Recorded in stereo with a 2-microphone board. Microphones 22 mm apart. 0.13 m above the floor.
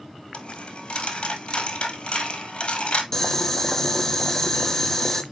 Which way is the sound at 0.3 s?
50° left (ahead or behind).